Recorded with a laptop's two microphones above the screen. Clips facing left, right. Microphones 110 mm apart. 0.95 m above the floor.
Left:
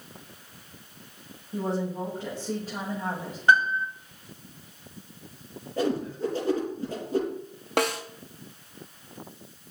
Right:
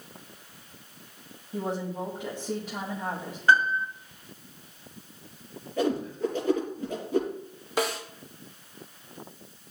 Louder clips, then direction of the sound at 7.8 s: Left 2 dB; 65° left (ahead or behind).